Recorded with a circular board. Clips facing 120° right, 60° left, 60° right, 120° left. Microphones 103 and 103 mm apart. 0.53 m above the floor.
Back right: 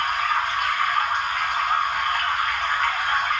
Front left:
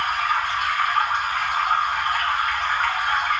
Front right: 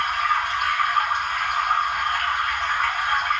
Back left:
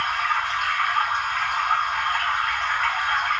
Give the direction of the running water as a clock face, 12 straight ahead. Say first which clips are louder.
Even, front right 2 dB; 11 o'clock.